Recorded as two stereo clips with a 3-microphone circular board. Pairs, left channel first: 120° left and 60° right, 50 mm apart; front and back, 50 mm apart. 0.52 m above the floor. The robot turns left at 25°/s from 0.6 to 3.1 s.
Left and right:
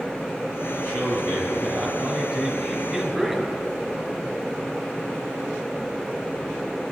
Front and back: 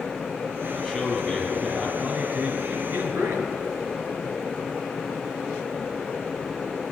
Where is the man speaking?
90° right, 4.5 m; by 3.5 s 150° right, 4.5 m.